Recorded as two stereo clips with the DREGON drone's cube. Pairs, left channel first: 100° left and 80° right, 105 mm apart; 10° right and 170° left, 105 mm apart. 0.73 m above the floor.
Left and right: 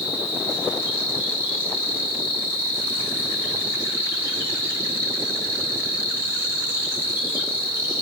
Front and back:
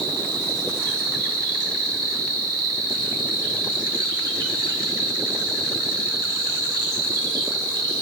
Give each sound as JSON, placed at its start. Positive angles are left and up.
{"t": 0.0, "sound": "an insect", "azimuth_deg": -145, "distance_m": 3.0}